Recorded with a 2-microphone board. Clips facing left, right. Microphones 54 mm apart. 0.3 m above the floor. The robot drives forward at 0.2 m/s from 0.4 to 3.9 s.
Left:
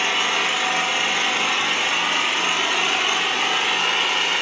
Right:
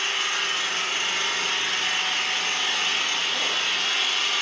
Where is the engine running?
90° left, 1.7 m; by 4.4 s 65° left (ahead or behind), 1.9 m.